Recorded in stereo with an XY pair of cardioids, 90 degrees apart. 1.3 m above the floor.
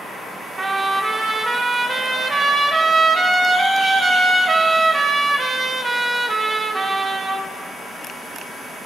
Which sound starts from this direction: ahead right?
A trumpet, at 0.6 s.